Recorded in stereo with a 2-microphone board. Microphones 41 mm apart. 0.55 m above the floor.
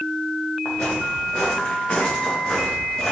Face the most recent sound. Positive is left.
turn(degrees=20)  # may be behind; listen again after turning